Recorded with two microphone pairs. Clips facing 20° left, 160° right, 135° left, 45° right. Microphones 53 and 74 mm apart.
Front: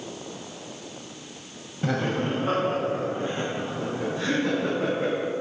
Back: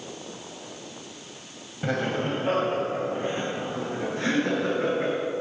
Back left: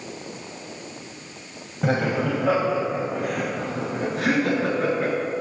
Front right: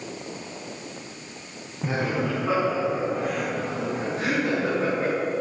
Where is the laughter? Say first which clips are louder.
Front 1 dB, back left 3 dB; 125° left, 3.5 m; by 5.1 s 155° left, 7 m.